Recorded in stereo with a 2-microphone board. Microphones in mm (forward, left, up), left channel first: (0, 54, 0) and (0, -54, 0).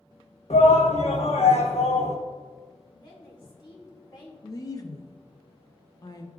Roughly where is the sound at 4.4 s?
Left.